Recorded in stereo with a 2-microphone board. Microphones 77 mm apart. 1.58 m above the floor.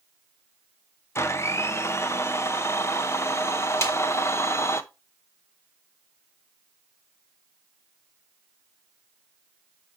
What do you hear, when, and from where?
1.1 s a blender: 35° left (ahead or behind), 0.7 m
3.8 s a snare drum: 40° left (ahead or behind), 1.8 m